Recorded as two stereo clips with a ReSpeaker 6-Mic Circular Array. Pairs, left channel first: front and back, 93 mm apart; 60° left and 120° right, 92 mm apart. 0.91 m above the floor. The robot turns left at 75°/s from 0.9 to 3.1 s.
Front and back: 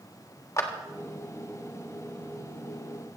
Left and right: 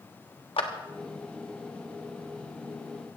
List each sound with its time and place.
0.6 s a clap: 55° left, 1.4 m